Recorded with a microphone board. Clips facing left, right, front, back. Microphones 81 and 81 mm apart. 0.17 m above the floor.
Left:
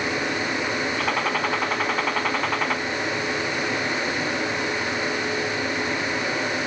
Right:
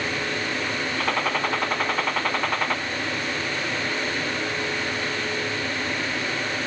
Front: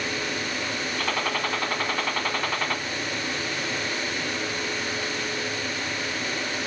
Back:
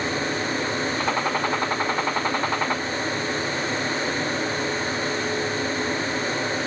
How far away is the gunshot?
About 0.9 m.